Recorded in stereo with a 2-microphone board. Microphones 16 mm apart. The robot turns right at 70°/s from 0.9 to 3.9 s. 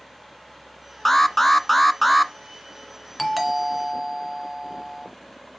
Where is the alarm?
20° left (ahead or behind), 0.8 m; by 2.3 s 5° right (ahead or behind), 0.8 m.